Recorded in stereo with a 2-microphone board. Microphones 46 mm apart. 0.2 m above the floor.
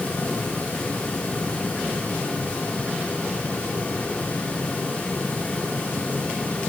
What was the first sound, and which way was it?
Only background noise.